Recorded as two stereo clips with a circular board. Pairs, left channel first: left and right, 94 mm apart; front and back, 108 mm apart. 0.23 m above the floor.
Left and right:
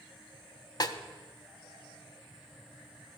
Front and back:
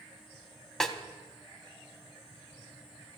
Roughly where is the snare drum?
Left.